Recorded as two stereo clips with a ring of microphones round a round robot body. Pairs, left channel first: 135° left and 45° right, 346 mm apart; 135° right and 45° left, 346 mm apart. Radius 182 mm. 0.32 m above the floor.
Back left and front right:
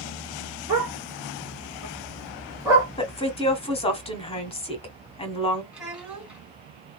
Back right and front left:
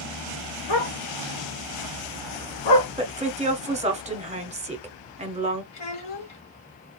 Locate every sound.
0.7 s a dog barking: 125° right, 3 m
3.0 s a woman speaking: 85° left, 1.2 m
5.7 s a child speaking: 130° right, 3 m